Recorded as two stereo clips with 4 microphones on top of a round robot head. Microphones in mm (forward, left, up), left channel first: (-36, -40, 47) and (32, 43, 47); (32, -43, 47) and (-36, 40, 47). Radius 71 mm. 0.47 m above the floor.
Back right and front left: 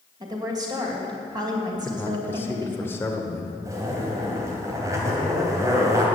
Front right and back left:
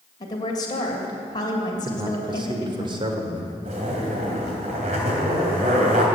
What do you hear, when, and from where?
0.2 s a woman speaking: straight ahead, 2.5 m
1.9 s a man speaking: 160° left, 2.0 m
3.6 s a zipper: 110° left, 3 m